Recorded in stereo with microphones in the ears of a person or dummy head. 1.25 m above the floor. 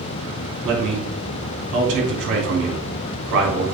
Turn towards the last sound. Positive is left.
turn(degrees=-70)  # may be behind; listen again after turning